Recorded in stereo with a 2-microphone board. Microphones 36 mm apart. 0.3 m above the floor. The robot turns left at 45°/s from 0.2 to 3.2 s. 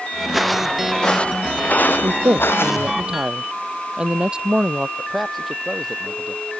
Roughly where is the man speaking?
Centre.